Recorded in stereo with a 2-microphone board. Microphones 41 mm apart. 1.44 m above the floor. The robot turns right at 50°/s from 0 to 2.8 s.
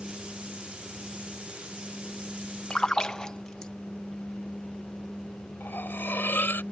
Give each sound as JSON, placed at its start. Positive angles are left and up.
{"t": 2.7, "sound": "a splash", "side_deg": 30}
{"t": 5.6, "sound": "cutlery clinking", "side_deg": 60}